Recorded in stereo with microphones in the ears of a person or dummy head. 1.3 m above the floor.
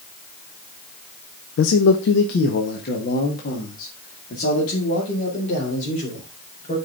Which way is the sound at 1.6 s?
70° left (ahead or behind).